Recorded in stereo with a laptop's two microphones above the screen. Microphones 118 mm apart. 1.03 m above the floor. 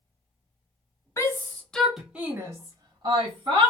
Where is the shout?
30° left (ahead or behind), 0.8 m; by 3.7 s 50° right (ahead or behind), 1.2 m.